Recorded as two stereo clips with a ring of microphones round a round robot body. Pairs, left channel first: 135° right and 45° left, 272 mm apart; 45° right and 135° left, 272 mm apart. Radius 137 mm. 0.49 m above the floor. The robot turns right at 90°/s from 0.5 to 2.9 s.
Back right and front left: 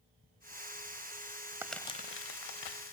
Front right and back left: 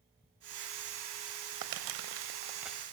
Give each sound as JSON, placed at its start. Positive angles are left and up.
{"t": 1.6, "sound": "crumpling", "azimuth_deg": 125, "distance_m": 1.0}